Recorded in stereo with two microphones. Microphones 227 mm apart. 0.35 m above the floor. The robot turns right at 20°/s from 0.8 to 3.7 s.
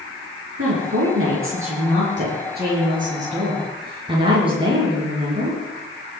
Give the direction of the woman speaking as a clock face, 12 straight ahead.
3 o'clock.